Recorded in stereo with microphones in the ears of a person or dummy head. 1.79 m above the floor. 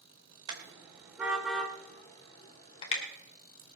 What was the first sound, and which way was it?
A car horn, 20° right (ahead or behind).